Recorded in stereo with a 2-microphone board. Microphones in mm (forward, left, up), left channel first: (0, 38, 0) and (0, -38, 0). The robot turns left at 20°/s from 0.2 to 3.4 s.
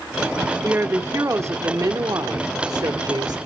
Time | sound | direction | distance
0.6 | a woman speaking | 30° right | 1.5 m